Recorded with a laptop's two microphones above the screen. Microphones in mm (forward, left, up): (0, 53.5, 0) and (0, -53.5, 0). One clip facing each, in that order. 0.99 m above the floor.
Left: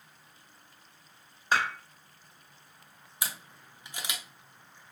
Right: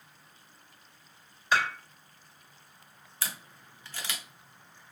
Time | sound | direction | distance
1.5 | dishes clattering | 40° left (ahead or behind) | 1.4 m
3.2 | a camera shutter | 15° left (ahead or behind) | 0.6 m